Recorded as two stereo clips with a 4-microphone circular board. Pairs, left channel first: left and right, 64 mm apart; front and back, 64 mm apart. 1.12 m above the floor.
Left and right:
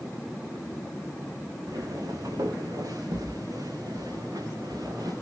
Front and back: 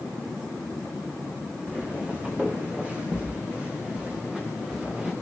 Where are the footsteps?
110° right, 5.5 m.